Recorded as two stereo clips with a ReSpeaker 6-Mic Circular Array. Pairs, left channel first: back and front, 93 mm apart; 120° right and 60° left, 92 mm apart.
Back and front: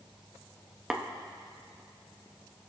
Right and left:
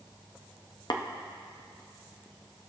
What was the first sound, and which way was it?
Tapping, 80° right.